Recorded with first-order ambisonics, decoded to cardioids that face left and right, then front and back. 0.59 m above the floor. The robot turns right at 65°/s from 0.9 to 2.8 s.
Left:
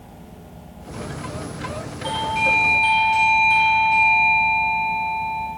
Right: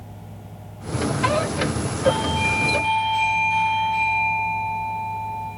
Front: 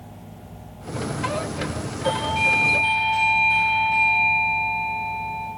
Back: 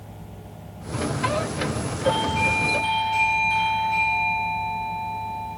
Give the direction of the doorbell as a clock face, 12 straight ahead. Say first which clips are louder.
Left 1 dB, front 1 dB; 10 o'clock.